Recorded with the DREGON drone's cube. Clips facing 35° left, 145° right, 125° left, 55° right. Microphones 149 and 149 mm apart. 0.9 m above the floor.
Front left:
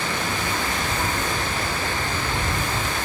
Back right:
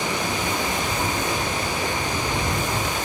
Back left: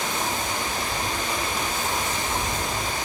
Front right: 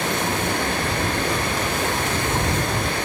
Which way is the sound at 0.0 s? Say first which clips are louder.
Back right 1 dB, front right 5 dB; 70° right.